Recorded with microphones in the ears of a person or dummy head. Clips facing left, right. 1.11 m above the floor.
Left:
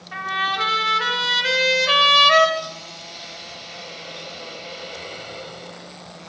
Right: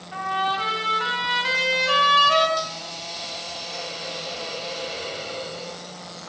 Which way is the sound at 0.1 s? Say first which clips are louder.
Right 3 dB; 55° left (ahead or behind).